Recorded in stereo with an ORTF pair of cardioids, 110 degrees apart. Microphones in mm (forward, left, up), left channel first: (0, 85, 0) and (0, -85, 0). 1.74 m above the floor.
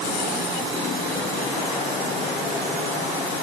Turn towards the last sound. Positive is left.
No sound to turn to.